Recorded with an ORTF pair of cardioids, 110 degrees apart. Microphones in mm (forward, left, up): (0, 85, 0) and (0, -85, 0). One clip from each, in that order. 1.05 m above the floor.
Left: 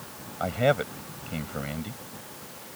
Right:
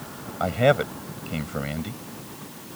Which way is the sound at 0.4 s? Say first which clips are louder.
Right 4 dB; 20° right.